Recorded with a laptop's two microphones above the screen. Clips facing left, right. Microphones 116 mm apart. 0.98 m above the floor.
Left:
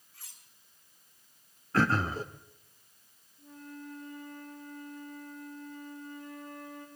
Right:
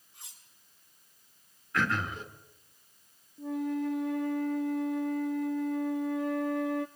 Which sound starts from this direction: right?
A flute, at 3.4 s.